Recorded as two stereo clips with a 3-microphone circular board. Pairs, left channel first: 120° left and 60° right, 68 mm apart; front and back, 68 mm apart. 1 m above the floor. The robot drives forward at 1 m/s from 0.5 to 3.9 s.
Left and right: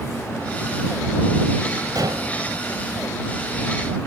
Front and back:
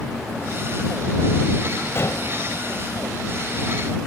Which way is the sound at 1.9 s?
50° right.